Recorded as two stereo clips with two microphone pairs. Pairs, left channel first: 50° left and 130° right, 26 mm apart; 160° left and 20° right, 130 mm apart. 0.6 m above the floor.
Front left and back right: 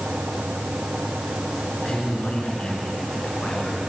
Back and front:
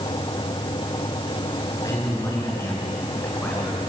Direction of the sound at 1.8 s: 95° left.